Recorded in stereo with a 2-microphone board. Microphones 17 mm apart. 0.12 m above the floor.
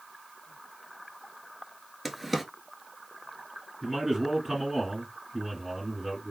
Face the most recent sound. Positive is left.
turn(degrees=-25)  # may be behind; listen again after turning